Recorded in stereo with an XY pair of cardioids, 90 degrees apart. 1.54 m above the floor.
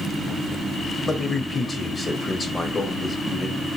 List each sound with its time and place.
1.1 s a man speaking: 30° left, 1.2 m